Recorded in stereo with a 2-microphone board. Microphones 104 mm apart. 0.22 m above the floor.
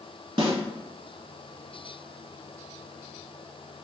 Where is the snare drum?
60° right (ahead or behind), 0.7 m.